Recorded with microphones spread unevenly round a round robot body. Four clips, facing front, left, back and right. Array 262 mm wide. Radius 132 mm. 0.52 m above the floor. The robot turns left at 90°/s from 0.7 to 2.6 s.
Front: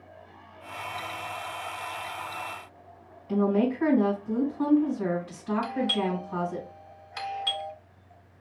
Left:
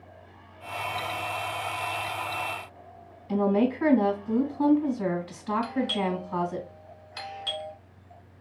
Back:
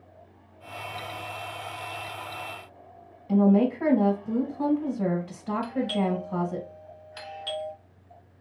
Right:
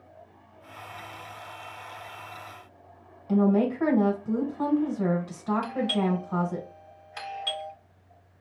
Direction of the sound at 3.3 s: 150° right.